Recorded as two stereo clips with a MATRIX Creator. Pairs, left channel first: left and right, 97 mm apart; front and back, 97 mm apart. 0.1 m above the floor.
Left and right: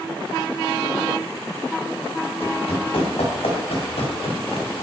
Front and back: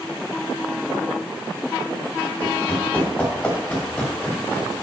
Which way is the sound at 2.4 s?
70° left.